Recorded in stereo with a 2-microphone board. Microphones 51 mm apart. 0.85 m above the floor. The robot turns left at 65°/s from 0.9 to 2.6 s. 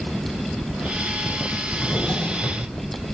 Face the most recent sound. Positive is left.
turn(degrees=130)